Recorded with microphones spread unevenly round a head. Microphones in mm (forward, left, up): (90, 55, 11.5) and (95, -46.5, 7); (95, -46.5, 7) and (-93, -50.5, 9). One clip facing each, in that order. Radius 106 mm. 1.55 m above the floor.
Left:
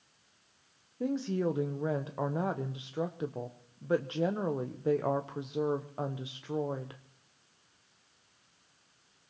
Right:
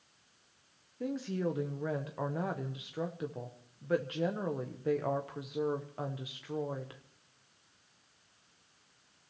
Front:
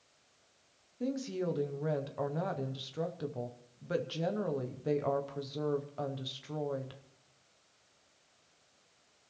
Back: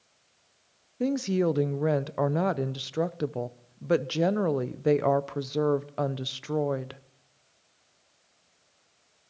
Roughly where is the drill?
No drill in this recording.